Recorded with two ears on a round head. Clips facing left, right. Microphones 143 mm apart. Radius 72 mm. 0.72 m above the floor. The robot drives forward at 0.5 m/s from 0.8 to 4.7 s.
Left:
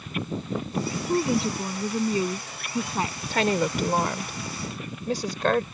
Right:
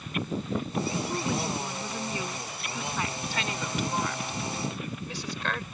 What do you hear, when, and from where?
1.1 s a woman speaking: 20° left (ahead or behind); by 3.2 s 25° left (ahead or behind)
3.3 s a woman speaking: 50° left (ahead or behind); by 5.6 s 40° left (ahead or behind)